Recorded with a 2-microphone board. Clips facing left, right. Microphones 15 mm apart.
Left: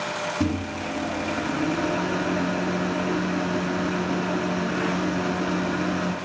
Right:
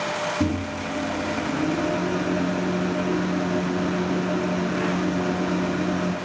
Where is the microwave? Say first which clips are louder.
Right 1 dB; 25° left (ahead or behind), 0.9 m.